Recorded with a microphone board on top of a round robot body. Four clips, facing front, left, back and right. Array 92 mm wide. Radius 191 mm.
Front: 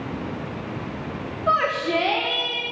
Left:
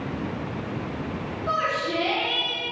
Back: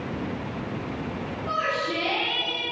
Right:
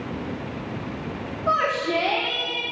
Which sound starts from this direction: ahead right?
A shout, at 1.5 s.